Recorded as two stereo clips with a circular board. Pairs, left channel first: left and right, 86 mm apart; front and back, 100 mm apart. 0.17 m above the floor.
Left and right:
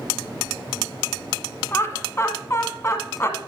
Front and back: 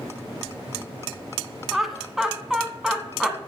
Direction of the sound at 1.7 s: 95° left.